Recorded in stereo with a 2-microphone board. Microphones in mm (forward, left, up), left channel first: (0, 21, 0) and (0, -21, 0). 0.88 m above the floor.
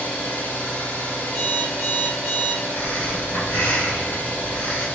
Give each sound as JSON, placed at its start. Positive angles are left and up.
{"t": 0.0, "sound": "an engine running", "side_deg": 55, "distance_m": 1.0}
{"t": 1.3, "sound": "an alarm clock", "side_deg": 30, "distance_m": 1.1}
{"t": 2.7, "sound": "breathing", "side_deg": 60, "distance_m": 1.3}